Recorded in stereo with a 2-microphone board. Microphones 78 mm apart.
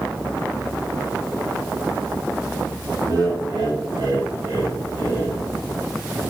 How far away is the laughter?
About 2.0 m.